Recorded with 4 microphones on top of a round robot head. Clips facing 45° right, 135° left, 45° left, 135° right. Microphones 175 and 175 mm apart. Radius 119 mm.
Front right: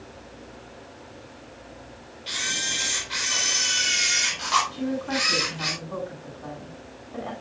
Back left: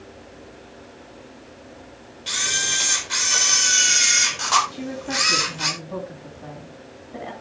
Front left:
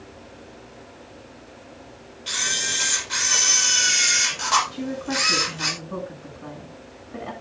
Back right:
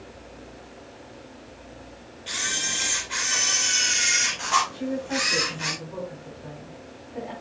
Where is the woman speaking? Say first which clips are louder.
Front right 2 dB, even; 60° left, 7.5 m.